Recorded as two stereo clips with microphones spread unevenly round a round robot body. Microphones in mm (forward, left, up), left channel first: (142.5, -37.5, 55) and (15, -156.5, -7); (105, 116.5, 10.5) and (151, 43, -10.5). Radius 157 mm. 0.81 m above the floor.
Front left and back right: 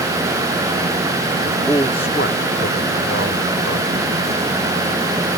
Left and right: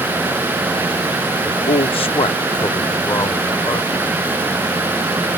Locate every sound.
1.4 s a man speaking: 150° left; by 4.1 s 80° left